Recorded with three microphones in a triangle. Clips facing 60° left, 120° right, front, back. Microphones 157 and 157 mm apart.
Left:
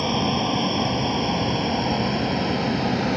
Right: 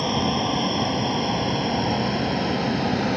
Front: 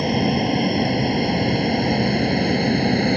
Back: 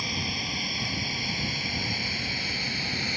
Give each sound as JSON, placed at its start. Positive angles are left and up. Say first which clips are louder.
{"t": 0.0, "sound": "a vehicle", "louder": "even, front 16 dB", "azimuth_deg": -30}